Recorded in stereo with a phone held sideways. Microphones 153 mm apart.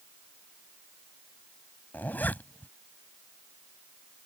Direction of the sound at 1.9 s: 10° left (ahead or behind).